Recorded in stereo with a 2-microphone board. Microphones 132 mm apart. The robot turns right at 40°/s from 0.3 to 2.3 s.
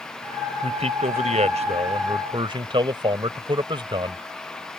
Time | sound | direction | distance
0.6 | a man speaking | 115° right | ?